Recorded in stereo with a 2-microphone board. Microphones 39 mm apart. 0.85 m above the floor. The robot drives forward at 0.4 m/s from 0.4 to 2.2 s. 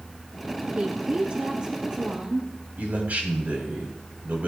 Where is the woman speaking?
35° right (ahead or behind), 1.1 m; by 2.5 s 25° right (ahead or behind), 1.5 m.